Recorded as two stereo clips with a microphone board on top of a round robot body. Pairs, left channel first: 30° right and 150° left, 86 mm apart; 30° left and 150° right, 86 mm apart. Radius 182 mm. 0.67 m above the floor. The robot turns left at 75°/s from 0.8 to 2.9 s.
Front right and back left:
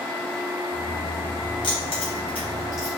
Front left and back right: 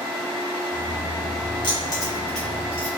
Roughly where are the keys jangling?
Ahead.